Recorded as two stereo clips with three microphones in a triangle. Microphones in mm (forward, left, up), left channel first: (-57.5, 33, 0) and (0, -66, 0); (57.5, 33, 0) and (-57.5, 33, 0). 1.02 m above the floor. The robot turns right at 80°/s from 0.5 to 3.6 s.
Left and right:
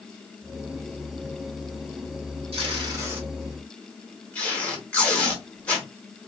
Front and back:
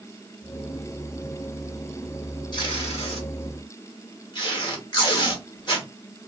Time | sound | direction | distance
2.5 | tape being pulled | 45° right | 1.4 m